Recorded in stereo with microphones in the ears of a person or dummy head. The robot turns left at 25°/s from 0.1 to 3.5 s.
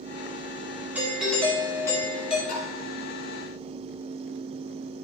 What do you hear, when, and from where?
0.9 s a doorbell: 170° right, 2 m; by 2.4 s 155° left, 2 m
2.5 s tapping: 35° left (ahead or behind), 4.5 m; by 2.7 s 40° left (ahead or behind), 4.5 m